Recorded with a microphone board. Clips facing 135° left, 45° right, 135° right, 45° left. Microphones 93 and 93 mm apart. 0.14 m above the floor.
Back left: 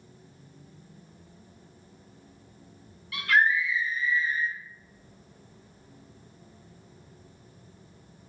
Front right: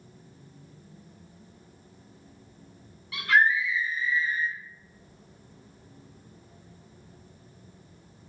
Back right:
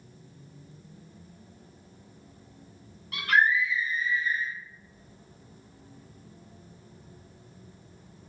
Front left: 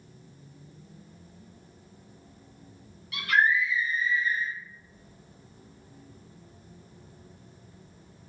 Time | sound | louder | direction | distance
3.1 | a scream | front right 1 dB, back right 1 dB | 105° right | 1.7 m